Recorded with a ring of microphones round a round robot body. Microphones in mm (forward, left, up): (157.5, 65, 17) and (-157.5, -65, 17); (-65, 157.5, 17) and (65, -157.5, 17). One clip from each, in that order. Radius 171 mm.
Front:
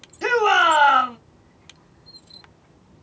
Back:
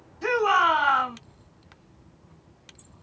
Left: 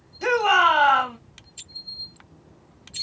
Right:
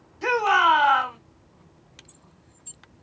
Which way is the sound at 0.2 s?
45° left.